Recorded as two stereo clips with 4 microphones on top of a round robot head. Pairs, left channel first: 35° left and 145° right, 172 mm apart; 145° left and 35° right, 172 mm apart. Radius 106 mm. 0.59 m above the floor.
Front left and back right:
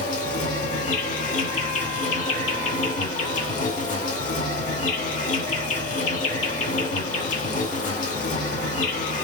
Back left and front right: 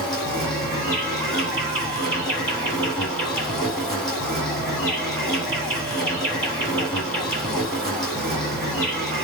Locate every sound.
0.0 s an insect: 60° left, 2.5 m